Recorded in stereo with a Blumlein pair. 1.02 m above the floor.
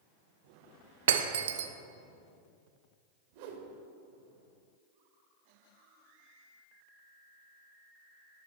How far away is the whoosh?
About 1.6 m.